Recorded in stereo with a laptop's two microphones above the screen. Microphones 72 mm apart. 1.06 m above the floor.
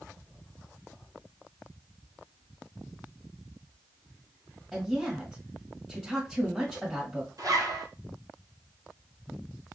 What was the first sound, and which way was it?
A woman speaking, 10° right (ahead or behind).